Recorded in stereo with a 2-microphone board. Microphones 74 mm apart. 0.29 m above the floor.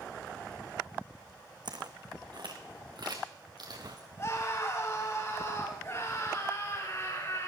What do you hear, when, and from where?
1.6 s footsteps: 65° right (ahead or behind), 1.3 m; by 4.1 s 60° right (ahead or behind), 2.5 m
4.2 s a scream: 35° left (ahead or behind), 4.5 m